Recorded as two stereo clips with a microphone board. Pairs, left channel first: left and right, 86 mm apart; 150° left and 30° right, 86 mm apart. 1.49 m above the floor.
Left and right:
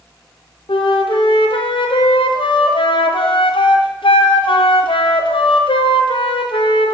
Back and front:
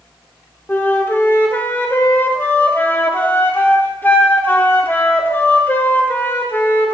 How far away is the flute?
About 0.6 m.